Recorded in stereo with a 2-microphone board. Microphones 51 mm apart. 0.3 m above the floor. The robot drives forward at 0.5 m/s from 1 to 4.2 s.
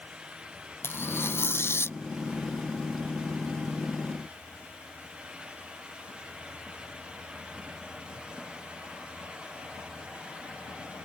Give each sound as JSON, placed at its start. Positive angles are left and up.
{"t": 0.8, "sound": "tearing paper", "side_deg": 55}